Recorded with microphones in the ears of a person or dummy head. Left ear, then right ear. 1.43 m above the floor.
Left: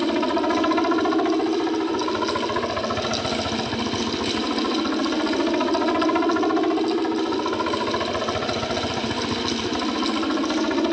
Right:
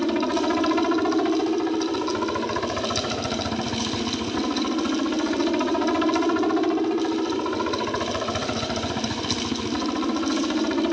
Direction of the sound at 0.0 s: 15° left (ahead or behind).